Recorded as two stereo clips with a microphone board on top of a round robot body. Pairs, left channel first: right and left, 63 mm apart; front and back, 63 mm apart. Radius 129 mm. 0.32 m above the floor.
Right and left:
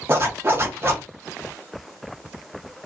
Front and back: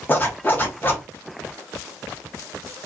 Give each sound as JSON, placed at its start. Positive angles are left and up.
{"t": 0.1, "sound": "a zipper", "azimuth_deg": 50, "distance_m": 1.1}